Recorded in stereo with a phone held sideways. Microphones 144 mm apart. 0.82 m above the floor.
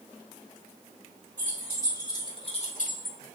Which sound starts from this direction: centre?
Keys jangling, at 1.4 s.